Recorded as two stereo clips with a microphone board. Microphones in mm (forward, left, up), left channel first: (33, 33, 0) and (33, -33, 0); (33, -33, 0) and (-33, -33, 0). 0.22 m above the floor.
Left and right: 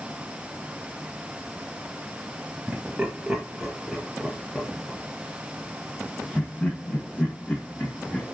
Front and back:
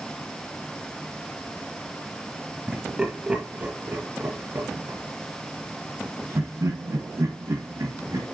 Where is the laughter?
110° right, 1.6 m; by 8.2 s 150° left, 3.5 m.